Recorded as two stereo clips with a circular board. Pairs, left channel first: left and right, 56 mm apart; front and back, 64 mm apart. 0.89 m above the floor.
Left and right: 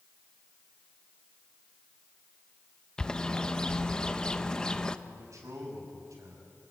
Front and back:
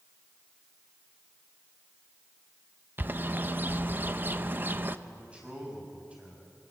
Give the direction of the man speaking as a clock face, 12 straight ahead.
4 o'clock.